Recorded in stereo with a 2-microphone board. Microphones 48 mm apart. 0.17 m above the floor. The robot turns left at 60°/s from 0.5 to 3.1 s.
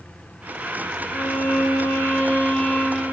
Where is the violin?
115° left, 2.5 m; by 3.1 s straight ahead, 2.5 m.